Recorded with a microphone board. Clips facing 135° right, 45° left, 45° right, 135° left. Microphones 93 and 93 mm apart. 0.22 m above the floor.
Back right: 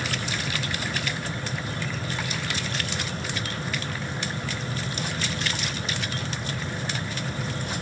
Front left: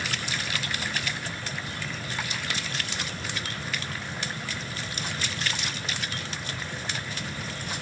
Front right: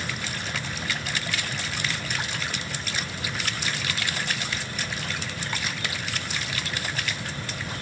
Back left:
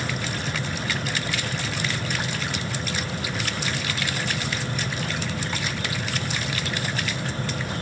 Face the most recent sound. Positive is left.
No sound to turn to.